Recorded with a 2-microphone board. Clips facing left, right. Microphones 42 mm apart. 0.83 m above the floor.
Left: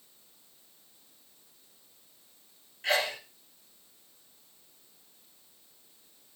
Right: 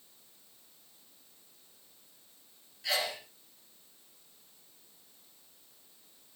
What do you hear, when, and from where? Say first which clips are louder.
2.8 s a sneeze: left 5 dB; 45° left (ahead or behind), 3.5 m